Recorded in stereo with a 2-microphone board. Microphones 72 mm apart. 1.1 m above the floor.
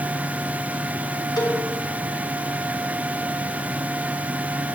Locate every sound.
1.4 s a cowbell: 75° left (ahead or behind), 2 m